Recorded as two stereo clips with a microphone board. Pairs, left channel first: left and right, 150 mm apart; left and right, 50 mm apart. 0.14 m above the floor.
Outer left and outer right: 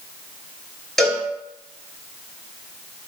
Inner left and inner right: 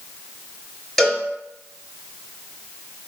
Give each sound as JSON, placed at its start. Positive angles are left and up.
{"t": 1.0, "sound": "a cowbell", "side_deg": 5, "distance_m": 0.8}